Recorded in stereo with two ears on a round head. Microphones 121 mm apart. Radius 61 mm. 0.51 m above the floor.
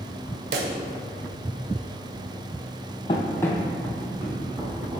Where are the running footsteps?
40° left (ahead or behind), 0.8 m; by 5.0 s 25° right (ahead or behind), 2.0 m.